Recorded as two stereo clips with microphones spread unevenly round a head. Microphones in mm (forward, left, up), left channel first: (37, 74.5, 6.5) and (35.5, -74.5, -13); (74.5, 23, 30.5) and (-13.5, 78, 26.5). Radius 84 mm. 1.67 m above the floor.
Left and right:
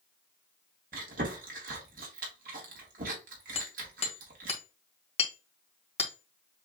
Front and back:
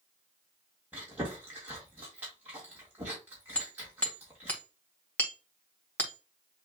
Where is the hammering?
40° left, 1.8 m.